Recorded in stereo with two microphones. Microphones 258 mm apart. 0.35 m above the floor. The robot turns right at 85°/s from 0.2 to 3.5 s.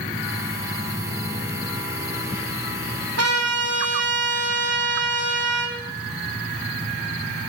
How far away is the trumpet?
About 3 m.